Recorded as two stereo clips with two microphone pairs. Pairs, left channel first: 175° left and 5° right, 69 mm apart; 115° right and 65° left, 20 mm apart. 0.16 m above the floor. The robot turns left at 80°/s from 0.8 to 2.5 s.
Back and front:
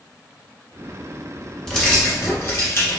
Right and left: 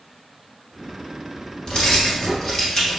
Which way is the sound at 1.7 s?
105° right.